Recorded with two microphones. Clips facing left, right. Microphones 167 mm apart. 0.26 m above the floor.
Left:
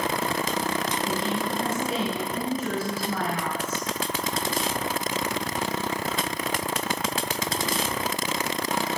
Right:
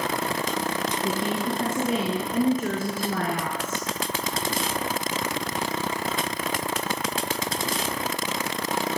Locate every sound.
1.0 s a woman speaking: 50° right (ahead or behind), 4 m